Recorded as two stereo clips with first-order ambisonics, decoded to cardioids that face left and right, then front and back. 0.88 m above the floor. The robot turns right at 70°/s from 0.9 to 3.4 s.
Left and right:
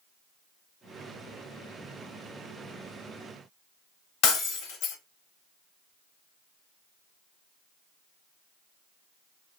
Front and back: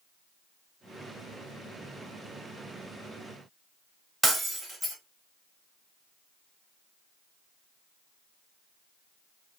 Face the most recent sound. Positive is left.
turn(degrees=95)